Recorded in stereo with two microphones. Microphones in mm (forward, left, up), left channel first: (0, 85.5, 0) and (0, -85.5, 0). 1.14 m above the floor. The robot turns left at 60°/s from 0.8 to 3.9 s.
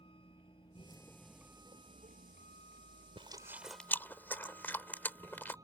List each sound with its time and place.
0.0 s a vehicle: 30° left (ahead or behind); by 5.7 s 20° right (ahead or behind)
3.2 s chewing: 35° right (ahead or behind); by 5.6 s 10° left (ahead or behind)